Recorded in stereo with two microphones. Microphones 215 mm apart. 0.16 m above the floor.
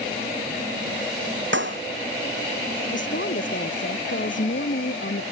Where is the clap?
60° right (ahead or behind).